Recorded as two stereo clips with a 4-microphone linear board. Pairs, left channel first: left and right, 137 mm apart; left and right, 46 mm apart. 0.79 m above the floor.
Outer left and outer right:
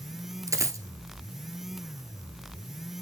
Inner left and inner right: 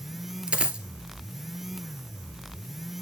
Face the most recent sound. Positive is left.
turn(degrees=-20)  # may be behind; listen again after turning